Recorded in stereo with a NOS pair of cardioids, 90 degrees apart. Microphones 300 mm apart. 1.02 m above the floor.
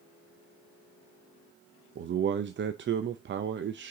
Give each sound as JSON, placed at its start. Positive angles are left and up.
{"t": 1.9, "sound": "a man speaking", "azimuth_deg": -40, "distance_m": 0.6}